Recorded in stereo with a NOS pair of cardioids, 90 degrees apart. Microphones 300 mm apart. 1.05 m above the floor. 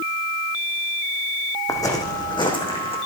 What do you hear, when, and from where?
1.7 s footsteps: 10° left, 4 m; by 3.0 s 20° left, 4 m